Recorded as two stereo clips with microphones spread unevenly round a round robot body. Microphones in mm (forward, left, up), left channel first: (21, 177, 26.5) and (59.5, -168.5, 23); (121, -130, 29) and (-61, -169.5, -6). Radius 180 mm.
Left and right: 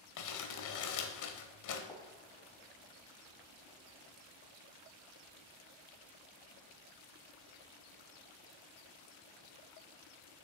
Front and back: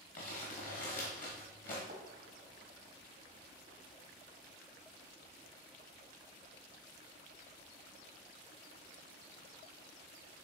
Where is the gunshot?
Straight behind, 1.5 m.